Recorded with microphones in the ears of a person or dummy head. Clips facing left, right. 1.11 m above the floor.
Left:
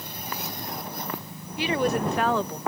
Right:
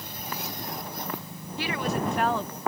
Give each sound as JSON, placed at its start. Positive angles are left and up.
{"t": 1.6, "sound": "a woman speaking", "side_deg": 10}